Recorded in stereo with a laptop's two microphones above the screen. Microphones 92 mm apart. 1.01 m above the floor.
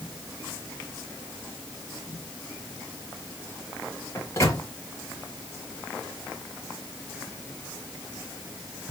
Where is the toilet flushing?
I don't hear a toilet flushing.